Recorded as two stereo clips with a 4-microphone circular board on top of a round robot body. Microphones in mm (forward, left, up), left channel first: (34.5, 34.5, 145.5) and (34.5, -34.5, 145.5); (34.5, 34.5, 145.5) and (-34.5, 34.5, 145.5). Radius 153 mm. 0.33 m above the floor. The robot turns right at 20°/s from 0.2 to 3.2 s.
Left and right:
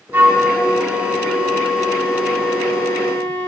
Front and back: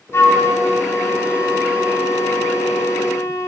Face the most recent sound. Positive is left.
turn(degrees=25)